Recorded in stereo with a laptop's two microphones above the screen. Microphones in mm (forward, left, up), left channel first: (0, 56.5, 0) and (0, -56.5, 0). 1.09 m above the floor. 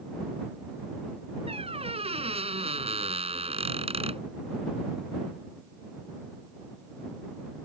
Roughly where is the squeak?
Right.